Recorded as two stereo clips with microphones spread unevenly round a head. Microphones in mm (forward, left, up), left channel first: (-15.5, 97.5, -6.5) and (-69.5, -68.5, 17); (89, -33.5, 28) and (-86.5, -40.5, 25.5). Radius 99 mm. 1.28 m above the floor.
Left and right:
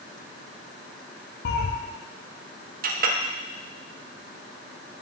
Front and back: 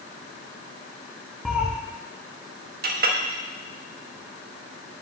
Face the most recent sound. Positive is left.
turn(degrees=-145)